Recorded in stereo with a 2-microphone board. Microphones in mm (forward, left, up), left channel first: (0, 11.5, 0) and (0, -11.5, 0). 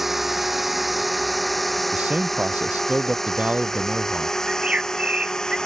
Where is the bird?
50° right (ahead or behind).